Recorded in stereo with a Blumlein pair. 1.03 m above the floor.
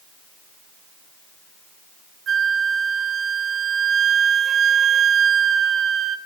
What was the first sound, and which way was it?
A flute, 25° right.